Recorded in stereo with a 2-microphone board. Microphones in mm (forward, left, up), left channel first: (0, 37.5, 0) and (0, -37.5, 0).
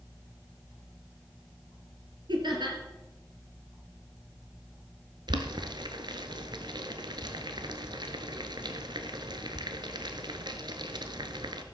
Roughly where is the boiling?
Right.